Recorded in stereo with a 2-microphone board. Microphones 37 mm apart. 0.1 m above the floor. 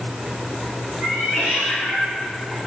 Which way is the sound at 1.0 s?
45° right (ahead or behind).